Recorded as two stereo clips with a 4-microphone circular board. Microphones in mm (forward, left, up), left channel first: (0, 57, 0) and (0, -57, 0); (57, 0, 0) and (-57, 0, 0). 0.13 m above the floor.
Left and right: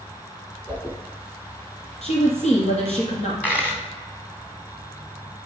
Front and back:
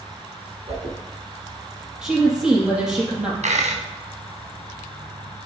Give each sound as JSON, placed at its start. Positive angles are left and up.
{"t": 0.7, "sound": "a whoosh", "azimuth_deg": 165, "distance_m": 3.5}
{"t": 2.0, "sound": "a woman speaking", "azimuth_deg": 95, "distance_m": 3.5}
{"t": 3.4, "sound": "a dropped coin", "azimuth_deg": 165, "distance_m": 2.5}